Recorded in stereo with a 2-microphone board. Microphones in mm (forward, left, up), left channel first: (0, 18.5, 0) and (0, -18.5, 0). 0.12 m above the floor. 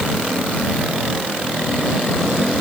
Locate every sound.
Only background noise.